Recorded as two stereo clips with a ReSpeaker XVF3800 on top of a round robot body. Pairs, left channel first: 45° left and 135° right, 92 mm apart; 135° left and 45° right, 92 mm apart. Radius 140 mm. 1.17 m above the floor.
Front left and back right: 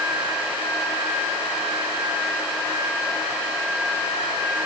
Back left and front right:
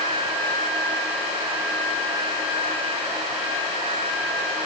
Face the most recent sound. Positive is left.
No sound to turn to.